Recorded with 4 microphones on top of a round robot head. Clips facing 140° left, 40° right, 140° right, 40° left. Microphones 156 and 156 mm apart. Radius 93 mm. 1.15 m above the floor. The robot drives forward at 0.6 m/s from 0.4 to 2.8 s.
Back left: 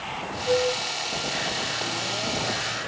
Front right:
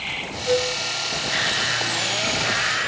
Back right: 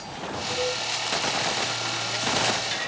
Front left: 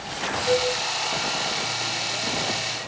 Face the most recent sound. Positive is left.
turn(degrees=65)